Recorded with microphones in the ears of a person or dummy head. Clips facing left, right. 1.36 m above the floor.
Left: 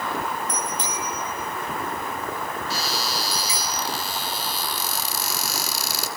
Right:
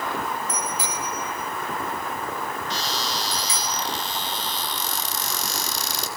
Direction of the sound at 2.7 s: 10° left (ahead or behind).